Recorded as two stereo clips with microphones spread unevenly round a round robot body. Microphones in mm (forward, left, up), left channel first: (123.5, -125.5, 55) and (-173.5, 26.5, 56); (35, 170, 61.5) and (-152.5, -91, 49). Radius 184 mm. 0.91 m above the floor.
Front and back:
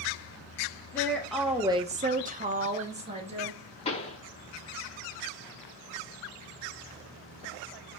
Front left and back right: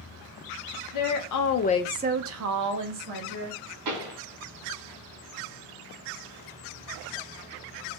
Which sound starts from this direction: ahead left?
A woman speaking, at 0.9 s.